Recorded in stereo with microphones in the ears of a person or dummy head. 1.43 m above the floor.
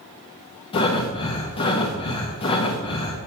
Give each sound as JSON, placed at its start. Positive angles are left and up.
{"t": 0.7, "sound": "breathing", "side_deg": 35, "distance_m": 1.0}